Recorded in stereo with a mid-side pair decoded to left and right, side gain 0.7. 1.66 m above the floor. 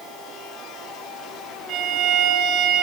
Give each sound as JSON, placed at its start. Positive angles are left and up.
{"t": 1.7, "sound": "a violin", "azimuth_deg": -50, "distance_m": 5.5}